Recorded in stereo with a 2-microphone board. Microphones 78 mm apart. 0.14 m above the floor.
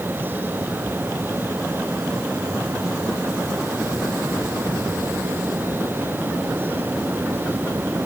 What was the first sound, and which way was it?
Only background noise.